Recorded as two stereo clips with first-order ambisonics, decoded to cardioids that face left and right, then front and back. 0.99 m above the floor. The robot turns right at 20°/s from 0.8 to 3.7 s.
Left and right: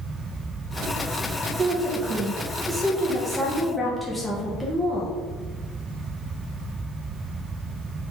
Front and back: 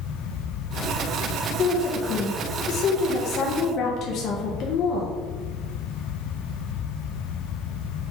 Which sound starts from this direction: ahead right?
A woman speaking, at 1.6 s.